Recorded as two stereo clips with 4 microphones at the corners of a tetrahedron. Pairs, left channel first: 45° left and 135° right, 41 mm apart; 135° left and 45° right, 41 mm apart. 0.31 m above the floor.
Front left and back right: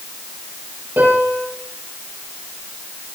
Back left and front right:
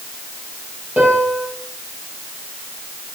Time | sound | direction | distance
1.0 | a piano | 110° right | 5.5 m